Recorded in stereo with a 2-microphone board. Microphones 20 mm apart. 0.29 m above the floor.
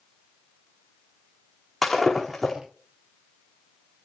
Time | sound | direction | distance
1.8 | breaking glass | centre (ahead or behind) | 6.5 m